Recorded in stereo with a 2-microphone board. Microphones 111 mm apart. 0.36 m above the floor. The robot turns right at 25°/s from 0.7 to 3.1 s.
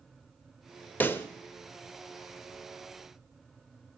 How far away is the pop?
About 0.6 m.